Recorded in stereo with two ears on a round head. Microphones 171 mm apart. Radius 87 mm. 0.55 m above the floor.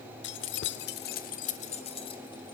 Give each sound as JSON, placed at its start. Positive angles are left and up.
{"t": 0.2, "sound": "keys jangling", "side_deg": 70, "distance_m": 1.1}